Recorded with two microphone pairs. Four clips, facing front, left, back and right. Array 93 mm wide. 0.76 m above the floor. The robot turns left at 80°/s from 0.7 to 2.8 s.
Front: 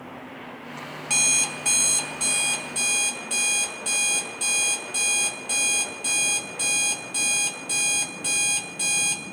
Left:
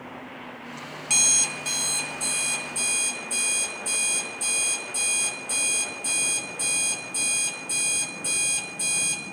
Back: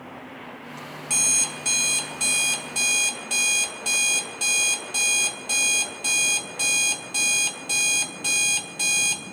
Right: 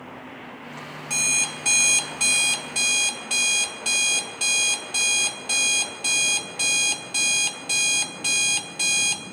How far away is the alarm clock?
About 0.8 m.